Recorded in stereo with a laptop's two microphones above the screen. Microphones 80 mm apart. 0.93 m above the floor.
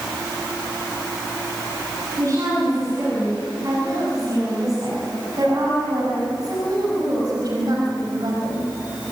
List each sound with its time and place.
2.2 s a woman speaking: 40° right (ahead or behind), 8 m; by 8.7 s 55° right (ahead or behind), 4.5 m